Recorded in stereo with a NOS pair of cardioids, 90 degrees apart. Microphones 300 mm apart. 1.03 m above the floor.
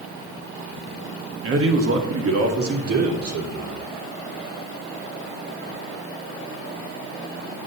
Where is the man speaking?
50° right, 1.7 m; by 3.8 s 55° right, 3.5 m.